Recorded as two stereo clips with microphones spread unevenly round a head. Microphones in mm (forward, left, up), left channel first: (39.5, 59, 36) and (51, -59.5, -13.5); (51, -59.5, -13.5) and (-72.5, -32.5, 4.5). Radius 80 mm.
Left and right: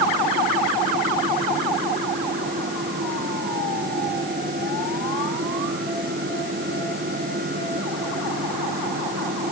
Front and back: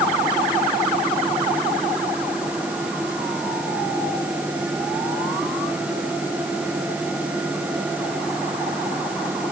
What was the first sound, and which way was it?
Only background noise.